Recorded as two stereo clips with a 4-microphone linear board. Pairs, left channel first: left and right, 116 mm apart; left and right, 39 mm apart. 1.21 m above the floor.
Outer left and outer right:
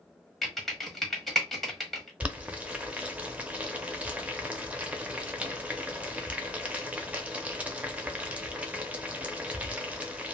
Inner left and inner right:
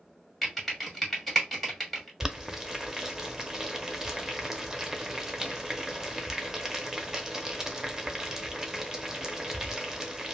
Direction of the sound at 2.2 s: 10° right (ahead or behind).